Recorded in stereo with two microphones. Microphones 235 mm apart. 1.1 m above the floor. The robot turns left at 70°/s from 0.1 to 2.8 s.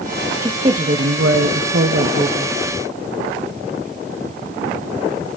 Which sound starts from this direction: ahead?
A woman speaking, at 0.4 s.